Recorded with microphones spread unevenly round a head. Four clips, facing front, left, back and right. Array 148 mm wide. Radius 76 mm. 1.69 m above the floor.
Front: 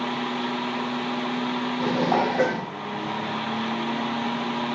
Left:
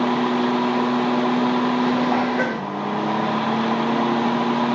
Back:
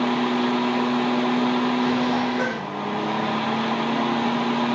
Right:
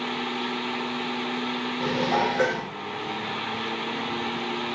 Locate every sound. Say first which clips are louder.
0.0 s a fan: left 10 dB, back 6 dB; 115° left, 0.9 m
1.8 s dishes clattering: left 5 dB, back 1 dB; 25° left, 2 m